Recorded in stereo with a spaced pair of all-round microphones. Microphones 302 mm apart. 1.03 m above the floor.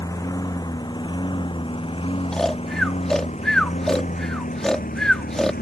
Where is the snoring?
Centre (ahead or behind).